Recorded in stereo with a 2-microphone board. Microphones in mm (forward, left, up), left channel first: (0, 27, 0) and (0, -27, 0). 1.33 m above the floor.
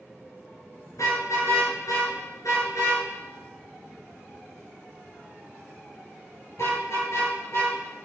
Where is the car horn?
80° left, 6.5 m; by 7.7 s 60° left (ahead or behind), 9.5 m.